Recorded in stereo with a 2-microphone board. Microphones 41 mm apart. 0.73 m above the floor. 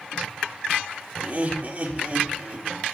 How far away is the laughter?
About 1.6 m.